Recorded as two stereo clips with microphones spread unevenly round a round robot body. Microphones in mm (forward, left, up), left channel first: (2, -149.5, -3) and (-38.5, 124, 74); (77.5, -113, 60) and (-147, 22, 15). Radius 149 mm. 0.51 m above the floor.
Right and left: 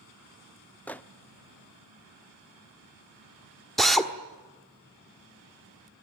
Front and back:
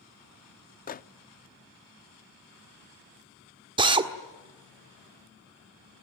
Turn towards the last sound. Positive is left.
turn(degrees=-155)